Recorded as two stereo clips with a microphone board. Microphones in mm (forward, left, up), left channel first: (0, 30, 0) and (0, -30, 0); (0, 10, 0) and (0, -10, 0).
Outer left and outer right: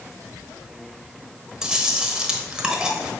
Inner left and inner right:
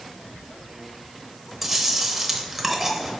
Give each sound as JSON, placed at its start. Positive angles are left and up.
{"t": 1.6, "sound": "chewing", "side_deg": -15, "distance_m": 1.1}